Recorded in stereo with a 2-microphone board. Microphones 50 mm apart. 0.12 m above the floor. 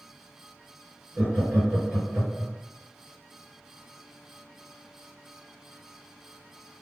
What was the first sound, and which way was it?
Laughter, 35° right (ahead or behind).